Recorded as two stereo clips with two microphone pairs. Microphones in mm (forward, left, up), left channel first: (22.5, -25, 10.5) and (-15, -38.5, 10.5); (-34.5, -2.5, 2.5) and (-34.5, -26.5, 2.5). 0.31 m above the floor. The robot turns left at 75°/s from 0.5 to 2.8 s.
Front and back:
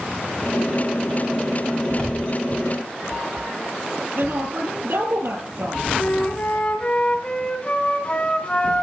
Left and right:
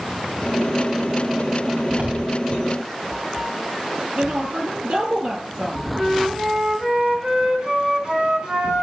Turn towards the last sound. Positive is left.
turn(degrees=-35)